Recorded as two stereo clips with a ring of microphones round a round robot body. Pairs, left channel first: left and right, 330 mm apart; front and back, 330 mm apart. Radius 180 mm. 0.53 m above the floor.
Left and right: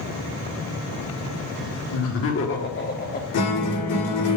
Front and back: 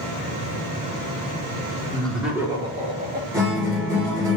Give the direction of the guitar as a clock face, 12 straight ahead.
9 o'clock.